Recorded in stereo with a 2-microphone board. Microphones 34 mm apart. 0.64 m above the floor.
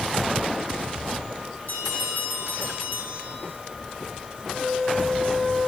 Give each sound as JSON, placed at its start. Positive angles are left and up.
{"t": 1.7, "sound": "a bell", "side_deg": 55, "distance_m": 3.5}
{"t": 4.5, "sound": "a flute", "side_deg": 45, "distance_m": 4.5}